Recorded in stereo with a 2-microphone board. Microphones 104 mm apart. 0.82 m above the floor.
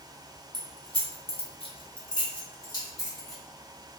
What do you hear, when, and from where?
0.5 s keys jangling: 40° left (ahead or behind), 0.6 m; by 3.4 s 30° left (ahead or behind), 1.5 m